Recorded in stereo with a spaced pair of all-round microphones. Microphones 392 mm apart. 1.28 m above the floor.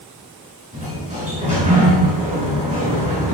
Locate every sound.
0.7 s a sliding door: 20° right (ahead or behind), 5.5 m